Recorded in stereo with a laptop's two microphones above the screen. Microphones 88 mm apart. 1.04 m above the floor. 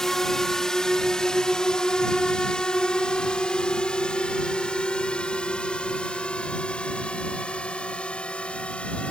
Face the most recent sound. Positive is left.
turn(degrees=15)  # may be behind; listen again after turning